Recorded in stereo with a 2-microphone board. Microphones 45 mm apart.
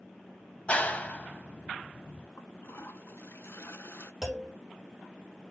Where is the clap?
30° left (ahead or behind), 1.1 m.